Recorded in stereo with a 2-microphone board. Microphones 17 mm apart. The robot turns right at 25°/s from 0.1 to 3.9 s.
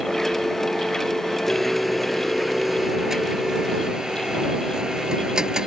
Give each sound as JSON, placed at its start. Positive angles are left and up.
{"t": 1.5, "sound": "a blender", "azimuth_deg": 170}